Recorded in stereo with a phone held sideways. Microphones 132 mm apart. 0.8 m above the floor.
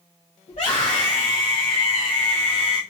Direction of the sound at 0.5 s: 60° left (ahead or behind).